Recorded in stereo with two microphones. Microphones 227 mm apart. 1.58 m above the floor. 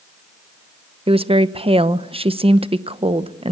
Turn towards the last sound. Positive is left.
turn(degrees=-25)  # may be behind; listen again after turning